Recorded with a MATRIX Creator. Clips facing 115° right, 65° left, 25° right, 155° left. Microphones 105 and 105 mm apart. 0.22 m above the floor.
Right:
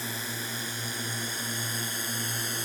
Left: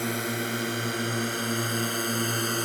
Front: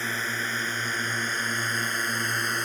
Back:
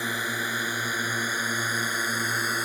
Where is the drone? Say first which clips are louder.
Left 8 dB, back 1 dB; 80° left; by 2.7 s 75° left.